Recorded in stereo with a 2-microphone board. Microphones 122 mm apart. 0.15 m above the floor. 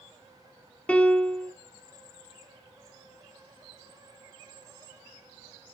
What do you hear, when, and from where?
0.9 s a piano: 10° left (ahead or behind), 0.6 m